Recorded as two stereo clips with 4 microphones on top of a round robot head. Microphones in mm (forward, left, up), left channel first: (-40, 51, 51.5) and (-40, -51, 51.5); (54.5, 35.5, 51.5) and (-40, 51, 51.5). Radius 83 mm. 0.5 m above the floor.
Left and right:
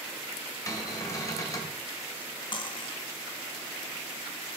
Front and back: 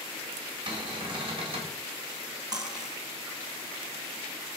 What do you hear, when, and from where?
0.7 s a cupboard door: 145° left, 2.5 m
2.5 s cutlery clinking: 125° left, 1.3 m